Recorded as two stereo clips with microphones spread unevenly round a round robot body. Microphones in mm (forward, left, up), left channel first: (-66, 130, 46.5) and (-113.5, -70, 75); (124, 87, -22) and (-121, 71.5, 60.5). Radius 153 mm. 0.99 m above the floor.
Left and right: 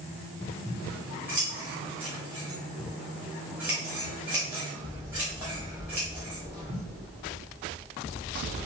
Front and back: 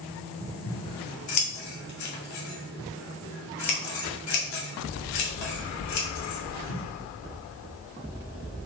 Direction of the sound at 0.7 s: 20° right.